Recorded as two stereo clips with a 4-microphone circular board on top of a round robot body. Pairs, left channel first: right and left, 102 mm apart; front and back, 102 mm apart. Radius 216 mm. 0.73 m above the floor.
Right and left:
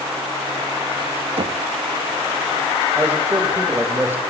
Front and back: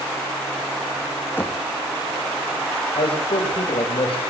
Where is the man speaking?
20° left, 3 m.